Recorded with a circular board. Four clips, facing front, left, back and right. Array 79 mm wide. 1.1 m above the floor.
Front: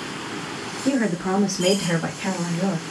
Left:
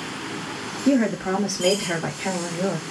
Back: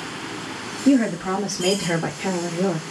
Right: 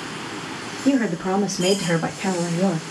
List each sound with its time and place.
0.8 s a woman speaking: 70° right, 1.7 m; by 2.8 s 120° right, 1.1 m